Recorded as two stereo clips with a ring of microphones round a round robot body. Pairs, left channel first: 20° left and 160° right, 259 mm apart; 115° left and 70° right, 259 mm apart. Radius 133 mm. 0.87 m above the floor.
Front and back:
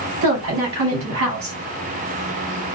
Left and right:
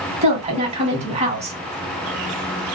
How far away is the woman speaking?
About 1.4 m.